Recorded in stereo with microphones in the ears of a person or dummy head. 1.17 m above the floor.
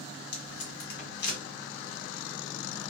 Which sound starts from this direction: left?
Tape being pulled, at 0.3 s.